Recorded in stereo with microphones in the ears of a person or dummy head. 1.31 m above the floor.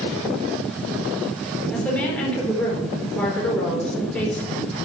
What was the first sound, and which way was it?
A woman speaking, 5° left (ahead or behind).